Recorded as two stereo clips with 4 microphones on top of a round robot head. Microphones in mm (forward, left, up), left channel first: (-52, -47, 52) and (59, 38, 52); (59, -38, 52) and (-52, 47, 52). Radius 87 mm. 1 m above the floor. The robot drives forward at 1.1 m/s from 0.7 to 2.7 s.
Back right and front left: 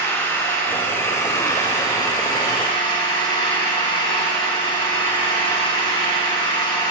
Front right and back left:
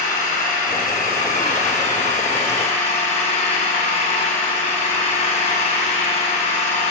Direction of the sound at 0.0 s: 65° right.